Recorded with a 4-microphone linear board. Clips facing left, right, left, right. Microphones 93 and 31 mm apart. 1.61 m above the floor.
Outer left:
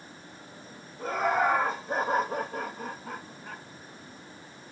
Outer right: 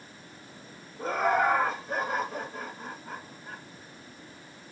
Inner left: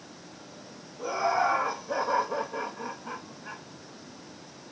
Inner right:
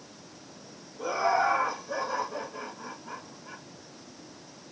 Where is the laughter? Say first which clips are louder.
Outer right 1 dB, inner right 1 dB; 15° right (ahead or behind), 1.7 m; by 3.6 s 80° left, 1.9 m.